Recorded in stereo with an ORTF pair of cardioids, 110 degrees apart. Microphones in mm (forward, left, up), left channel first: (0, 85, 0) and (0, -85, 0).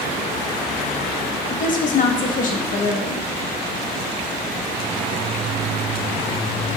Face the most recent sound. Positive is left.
turn(degrees=50)